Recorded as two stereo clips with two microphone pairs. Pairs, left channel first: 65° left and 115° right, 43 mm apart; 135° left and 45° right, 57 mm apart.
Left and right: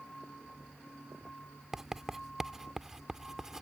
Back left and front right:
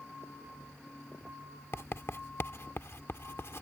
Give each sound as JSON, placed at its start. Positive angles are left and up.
{"t": 1.7, "sound": "writing", "azimuth_deg": 170}